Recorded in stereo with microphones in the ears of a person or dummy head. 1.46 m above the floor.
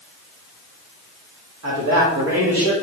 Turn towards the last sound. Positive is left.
turn(degrees=-65)  # may be behind; listen again after turning